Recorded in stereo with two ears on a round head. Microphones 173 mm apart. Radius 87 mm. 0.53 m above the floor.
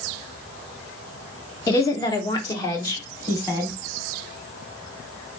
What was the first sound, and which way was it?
A woman speaking, 20° left (ahead or behind).